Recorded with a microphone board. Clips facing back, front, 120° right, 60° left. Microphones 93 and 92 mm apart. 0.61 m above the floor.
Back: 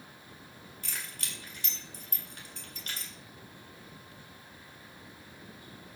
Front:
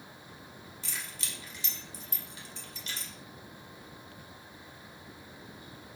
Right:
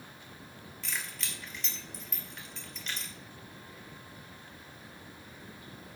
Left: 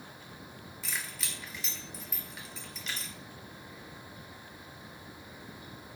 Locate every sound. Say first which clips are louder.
0.8 s keys jangling: even, even; 150° left, 1.7 m